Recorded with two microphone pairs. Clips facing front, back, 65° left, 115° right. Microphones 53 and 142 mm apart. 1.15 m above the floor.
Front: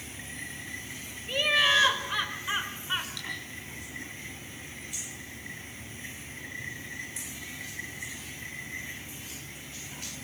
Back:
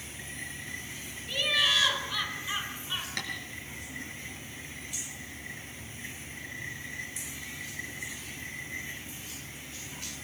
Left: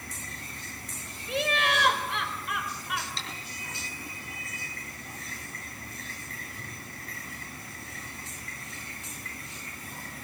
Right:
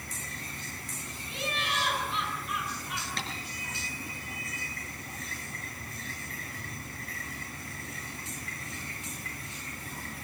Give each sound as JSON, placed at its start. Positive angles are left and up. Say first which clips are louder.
{"t": 1.3, "sound": "laughter", "louder": "front 3 dB, left 7 dB", "azimuth_deg": 55, "distance_m": 4.5}
{"t": 3.2, "sound": "tapping", "louder": "back 4 dB, right 4 dB", "azimuth_deg": -150, "distance_m": 5.5}